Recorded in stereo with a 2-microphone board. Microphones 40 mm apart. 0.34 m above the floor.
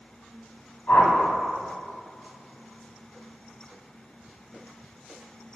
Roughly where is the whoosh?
Left.